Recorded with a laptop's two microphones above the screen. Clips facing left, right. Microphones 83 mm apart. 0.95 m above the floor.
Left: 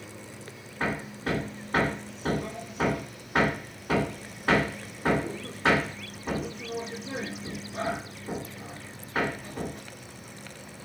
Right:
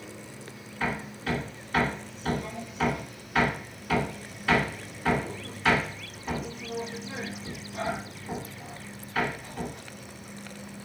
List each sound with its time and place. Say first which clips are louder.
0.8 s hammering: left 1 dB; 40° left (ahead or behind), 1.5 m